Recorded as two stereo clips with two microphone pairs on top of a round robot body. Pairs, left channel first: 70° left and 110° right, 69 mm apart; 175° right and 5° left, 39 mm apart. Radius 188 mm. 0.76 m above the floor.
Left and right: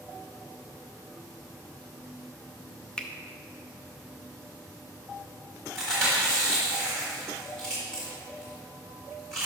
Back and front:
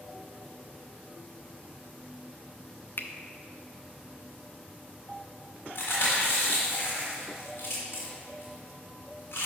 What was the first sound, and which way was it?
A finger snap, 145° left.